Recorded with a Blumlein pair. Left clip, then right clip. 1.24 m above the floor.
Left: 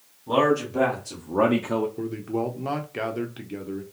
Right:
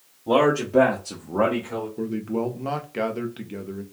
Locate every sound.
0.3 s a man speaking: 50° right, 1.0 m; by 1.9 s 55° left, 0.5 m
2.0 s a man speaking: 5° right, 0.6 m